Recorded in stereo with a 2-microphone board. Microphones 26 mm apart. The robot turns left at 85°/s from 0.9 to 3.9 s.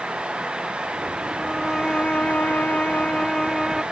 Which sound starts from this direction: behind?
A violin, at 1.4 s.